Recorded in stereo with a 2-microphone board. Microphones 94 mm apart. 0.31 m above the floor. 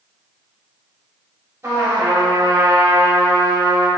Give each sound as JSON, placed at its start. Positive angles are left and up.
{"t": 1.6, "sound": "a trumpet", "side_deg": -30, "distance_m": 1.1}